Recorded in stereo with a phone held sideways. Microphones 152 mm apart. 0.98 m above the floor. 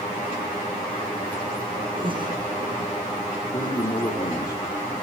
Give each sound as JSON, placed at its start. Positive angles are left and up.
{"t": 2.0, "sound": "breathing", "side_deg": -35, "distance_m": 6.0}
{"t": 3.5, "sound": "a man speaking", "side_deg": 30, "distance_m": 2.0}